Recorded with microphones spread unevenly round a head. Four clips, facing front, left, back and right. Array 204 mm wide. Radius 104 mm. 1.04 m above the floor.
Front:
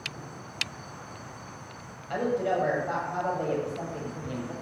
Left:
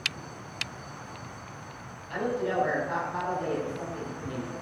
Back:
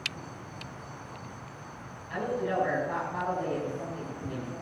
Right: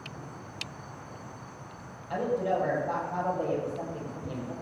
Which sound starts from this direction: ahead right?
A woman speaking, at 2.1 s.